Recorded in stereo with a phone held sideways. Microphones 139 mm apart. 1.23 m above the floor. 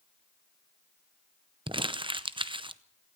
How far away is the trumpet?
I don't hear a trumpet.